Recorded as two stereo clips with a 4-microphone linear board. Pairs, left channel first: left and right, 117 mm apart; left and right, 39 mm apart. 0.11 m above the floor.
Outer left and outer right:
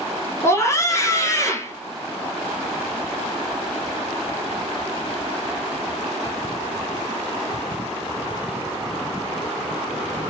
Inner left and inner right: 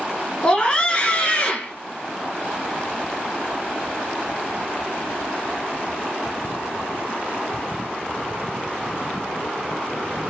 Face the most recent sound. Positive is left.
turn(degrees=25)  # may be behind; listen again after turning